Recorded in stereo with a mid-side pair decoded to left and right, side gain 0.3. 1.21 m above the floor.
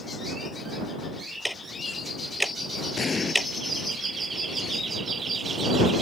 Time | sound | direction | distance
1.4 | ticking | straight ahead | ?
3.0 | an explosion | 50° left | ?